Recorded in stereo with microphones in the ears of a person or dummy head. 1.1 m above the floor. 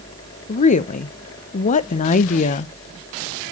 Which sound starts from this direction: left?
A woman speaking, at 0.5 s.